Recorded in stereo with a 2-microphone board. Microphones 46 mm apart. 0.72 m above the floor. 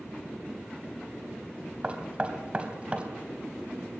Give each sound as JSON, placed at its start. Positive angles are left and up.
{"t": 1.8, "sound": "knocking", "side_deg": -25, "distance_m": 3.0}